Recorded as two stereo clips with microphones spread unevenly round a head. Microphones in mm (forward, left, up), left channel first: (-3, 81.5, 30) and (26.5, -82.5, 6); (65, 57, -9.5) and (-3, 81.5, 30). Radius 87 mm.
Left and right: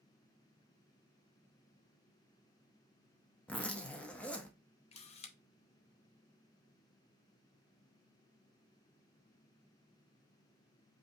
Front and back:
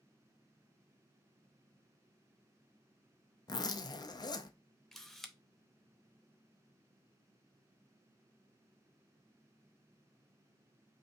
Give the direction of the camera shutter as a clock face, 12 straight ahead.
9 o'clock.